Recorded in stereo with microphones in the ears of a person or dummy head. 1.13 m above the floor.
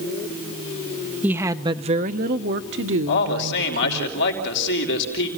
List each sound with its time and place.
1.2 s a woman speaking: 10° right (ahead or behind), 0.9 m; by 4.1 s 70° right (ahead or behind), 1.9 m
3.1 s a man speaking: 60° left (ahead or behind), 5 m